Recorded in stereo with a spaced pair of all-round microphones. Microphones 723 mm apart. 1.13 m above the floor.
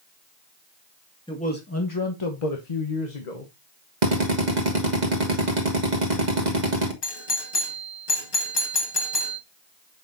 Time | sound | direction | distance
1.3 | a man speaking | 5° left (ahead or behind) | 1.6 m
4.0 | a drill | 75° right (ahead or behind) | 1.9 m
7.0 | a doorbell | 35° left (ahead or behind) | 1.4 m